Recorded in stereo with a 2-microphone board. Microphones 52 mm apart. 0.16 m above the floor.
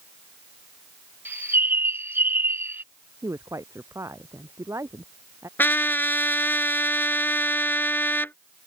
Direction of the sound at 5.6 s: 40° left (ahead or behind).